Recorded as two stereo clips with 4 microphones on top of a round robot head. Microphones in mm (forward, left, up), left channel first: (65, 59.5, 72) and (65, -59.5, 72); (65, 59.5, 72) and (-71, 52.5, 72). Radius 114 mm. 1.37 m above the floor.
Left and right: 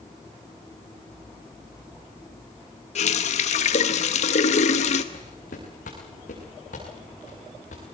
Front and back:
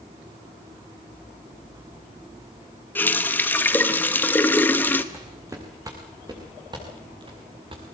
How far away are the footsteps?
About 5.5 m.